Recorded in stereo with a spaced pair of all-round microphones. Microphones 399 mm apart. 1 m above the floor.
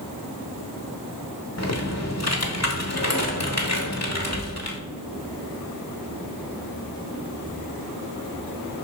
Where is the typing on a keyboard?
40° left (ahead or behind), 1.2 m.